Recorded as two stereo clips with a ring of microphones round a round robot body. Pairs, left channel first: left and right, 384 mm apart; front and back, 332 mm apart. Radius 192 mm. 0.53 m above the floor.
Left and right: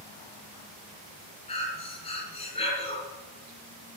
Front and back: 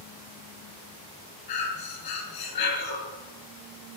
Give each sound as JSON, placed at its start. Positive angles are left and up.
{"t": 1.5, "sound": "breathing", "azimuth_deg": 15, "distance_m": 7.0}